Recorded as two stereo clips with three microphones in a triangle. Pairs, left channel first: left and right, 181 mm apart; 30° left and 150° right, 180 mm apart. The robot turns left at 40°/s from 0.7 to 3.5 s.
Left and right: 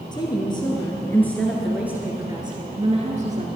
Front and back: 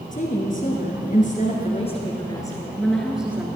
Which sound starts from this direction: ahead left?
A woman speaking, at 0.1 s.